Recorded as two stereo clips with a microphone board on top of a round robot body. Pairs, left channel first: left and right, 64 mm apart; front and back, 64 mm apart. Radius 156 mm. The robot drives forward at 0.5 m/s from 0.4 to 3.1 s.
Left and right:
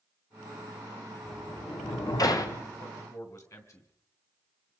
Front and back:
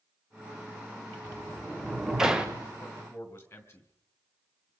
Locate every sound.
1.2 s a sliding door: 85° left, 2 m; by 2.7 s 110° left, 2 m
2.8 s a man speaking: 55° left, 3.5 m